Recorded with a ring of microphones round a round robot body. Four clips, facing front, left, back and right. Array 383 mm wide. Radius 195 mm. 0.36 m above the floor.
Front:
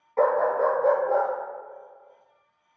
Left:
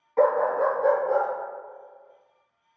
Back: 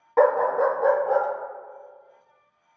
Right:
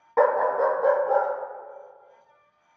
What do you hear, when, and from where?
0.2 s a dog barking: 135° right, 0.7 m; by 1.3 s straight behind, 0.7 m